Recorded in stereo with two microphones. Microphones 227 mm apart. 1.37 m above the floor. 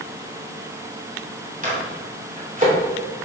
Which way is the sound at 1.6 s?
35° right (ahead or behind).